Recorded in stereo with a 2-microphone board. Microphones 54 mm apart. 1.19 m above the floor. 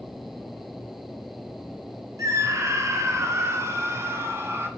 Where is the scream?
80° right, 2.5 m; by 4.7 s 50° right (ahead or behind), 3.5 m.